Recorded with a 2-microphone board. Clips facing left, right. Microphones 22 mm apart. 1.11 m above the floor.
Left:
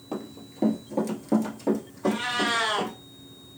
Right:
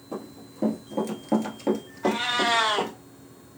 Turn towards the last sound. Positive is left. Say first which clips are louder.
# right 2 dB
turn(degrees=-45)  # may be behind; listen again after turning